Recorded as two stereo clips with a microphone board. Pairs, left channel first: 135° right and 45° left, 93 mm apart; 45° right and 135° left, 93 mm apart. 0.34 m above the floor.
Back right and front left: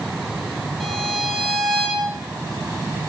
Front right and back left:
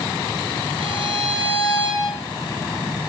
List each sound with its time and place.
0.8 s a violin: 135° left, 9 m